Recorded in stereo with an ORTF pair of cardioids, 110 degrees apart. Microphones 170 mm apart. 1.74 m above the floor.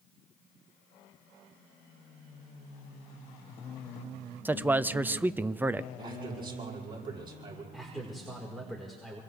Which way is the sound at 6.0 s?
30° right.